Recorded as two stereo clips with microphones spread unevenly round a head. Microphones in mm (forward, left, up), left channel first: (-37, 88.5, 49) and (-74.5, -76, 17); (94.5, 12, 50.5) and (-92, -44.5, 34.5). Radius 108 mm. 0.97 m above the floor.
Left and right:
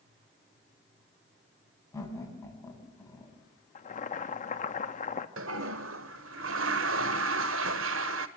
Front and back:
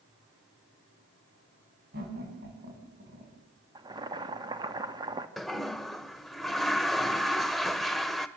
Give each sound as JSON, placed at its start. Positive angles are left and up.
{"t": 1.9, "sound": "laughter", "azimuth_deg": 150, "distance_m": 8.5}
{"t": 3.8, "sound": "boiling", "azimuth_deg": 125, "distance_m": 1.6}
{"t": 5.4, "sound": "a toilet flushing", "azimuth_deg": -70, "distance_m": 1.0}